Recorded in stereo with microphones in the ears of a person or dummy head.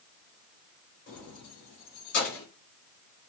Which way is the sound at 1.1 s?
45° left (ahead or behind).